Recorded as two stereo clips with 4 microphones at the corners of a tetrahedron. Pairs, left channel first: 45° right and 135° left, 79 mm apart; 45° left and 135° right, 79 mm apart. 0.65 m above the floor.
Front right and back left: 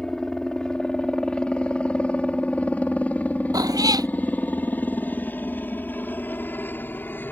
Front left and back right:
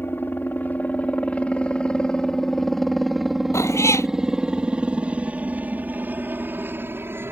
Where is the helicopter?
25° left; by 7.3 s 95° right.